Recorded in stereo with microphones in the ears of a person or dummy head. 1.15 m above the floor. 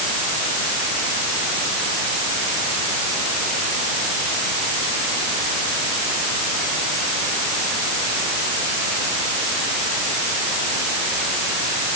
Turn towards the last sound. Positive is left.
No sound to turn to.